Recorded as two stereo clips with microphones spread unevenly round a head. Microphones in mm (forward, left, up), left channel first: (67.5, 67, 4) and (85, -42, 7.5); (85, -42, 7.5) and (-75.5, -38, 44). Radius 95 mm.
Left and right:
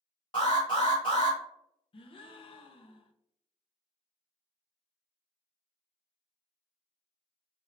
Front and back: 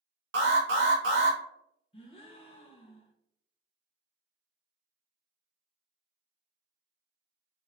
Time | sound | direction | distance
0.3 | an alarm | 165° left | 1.3 m
1.9 | a gasp | 60° left | 0.6 m